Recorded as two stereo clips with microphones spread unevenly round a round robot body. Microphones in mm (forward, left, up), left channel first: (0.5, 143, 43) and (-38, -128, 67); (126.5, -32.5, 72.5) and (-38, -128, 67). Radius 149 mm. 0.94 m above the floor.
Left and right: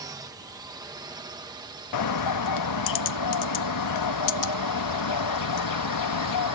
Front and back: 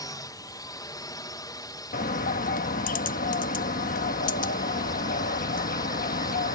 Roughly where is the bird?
Left.